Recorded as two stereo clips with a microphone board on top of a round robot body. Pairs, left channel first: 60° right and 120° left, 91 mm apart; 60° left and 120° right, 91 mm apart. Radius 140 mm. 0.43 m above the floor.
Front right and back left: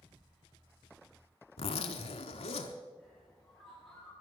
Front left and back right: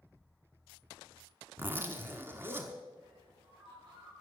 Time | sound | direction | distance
1.6 | a zipper | 55° right | 0.9 m
3.0 | a bird | 145° right | 6 m